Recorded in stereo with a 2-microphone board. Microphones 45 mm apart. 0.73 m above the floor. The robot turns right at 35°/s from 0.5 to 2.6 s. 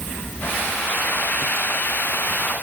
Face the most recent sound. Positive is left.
No sound to turn to.